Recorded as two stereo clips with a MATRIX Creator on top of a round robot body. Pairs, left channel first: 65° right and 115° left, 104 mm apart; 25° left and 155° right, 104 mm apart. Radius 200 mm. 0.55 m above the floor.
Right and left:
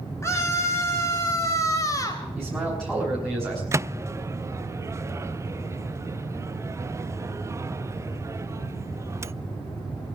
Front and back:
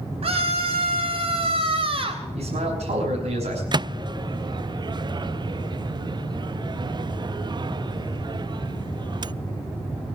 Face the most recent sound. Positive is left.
turn(degrees=170)